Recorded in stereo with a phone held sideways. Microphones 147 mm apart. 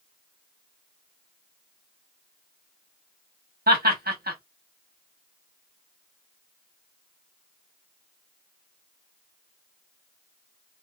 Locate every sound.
3.7 s laughter: 85° right, 1.5 m